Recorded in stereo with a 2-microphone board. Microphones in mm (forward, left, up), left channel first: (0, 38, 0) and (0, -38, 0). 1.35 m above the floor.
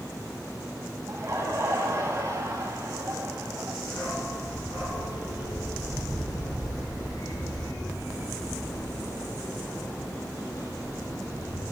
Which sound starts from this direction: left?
A dog barking, at 3.8 s.